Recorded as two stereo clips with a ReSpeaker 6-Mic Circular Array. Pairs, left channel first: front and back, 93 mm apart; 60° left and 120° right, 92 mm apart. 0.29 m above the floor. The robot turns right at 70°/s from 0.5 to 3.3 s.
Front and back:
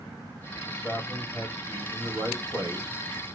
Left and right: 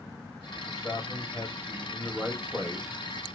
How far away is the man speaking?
About 1.5 m.